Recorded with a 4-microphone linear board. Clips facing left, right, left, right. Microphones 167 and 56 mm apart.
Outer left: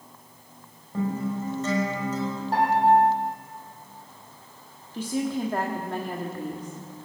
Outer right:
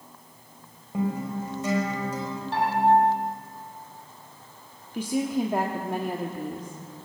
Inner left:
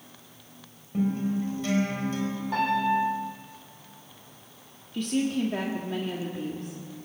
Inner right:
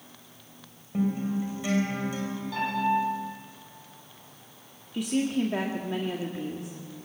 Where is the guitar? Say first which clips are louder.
Even, inner left 1 dB; 10° right (ahead or behind), 5 m.